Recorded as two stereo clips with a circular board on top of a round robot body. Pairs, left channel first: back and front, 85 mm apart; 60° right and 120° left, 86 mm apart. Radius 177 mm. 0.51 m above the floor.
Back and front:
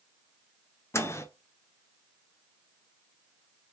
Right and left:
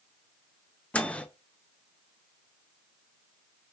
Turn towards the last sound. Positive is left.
turn(degrees=-130)